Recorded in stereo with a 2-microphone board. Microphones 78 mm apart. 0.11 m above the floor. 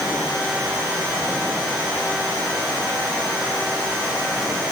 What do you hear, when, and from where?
Only background noise.